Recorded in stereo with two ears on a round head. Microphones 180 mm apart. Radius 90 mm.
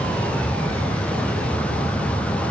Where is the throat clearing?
No throat clearing in this recording.